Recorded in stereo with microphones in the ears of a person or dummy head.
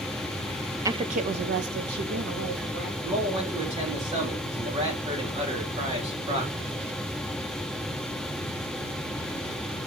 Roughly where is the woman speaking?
Centre.